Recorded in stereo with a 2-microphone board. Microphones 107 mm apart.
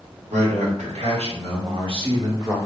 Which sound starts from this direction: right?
A man speaking, at 0.3 s.